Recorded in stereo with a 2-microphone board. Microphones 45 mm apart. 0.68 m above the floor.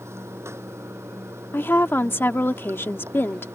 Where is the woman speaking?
55° left (ahead or behind).